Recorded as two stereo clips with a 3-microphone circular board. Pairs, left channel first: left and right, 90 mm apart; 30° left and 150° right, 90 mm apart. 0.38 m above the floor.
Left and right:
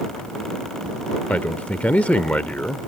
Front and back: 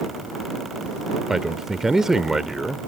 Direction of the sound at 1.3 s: 135° left.